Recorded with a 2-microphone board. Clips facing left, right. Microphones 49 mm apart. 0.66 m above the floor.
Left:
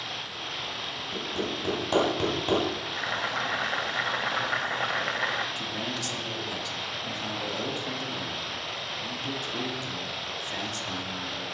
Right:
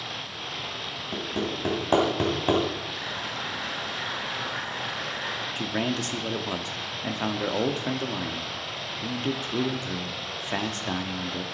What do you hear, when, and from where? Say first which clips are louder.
1.1 s hammering: right 2 dB; 30° right (ahead or behind), 3 m
2.9 s boiling: left 3 dB; 50° left (ahead or behind), 1.0 m
5.6 s a man speaking: right 5 dB; 40° right (ahead or behind), 1.0 m